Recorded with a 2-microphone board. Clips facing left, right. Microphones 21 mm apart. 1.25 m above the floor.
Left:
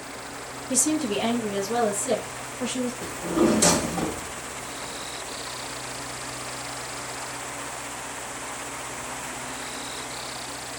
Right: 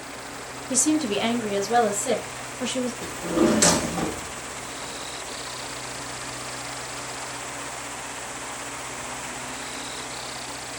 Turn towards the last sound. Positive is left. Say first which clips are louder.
# even
turn(degrees=-40)  # may be behind; listen again after turning